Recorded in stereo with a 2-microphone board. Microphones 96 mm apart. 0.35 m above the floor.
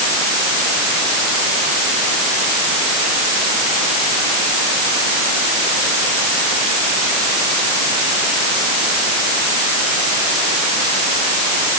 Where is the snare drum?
No snare drum in this recording.